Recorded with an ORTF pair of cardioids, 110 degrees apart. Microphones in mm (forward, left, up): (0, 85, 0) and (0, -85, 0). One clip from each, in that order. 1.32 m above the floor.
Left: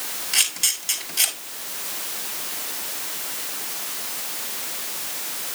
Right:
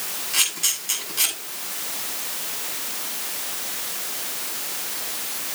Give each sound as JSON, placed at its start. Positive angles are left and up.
{"t": 0.3, "sound": "a camera shutter", "azimuth_deg": 40, "distance_m": 7.5}